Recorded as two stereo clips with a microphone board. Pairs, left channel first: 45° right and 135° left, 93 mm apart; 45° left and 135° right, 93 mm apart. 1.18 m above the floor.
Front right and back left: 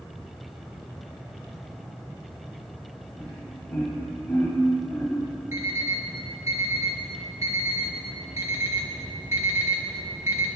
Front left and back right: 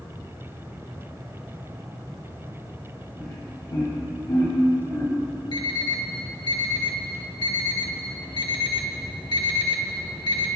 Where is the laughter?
45° left, 4 m; by 5.2 s straight ahead, 3 m.